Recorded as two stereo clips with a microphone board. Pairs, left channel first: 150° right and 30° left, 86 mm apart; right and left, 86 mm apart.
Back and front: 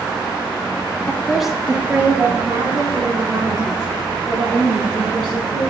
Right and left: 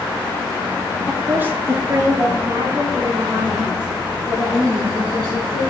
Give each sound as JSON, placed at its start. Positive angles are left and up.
{"t": 1.1, "sound": "a woman speaking", "azimuth_deg": 150, "distance_m": 0.9}